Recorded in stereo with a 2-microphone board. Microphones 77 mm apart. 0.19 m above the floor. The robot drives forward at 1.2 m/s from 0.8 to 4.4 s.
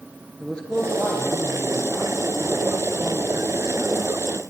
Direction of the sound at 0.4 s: 10° left (ahead or behind).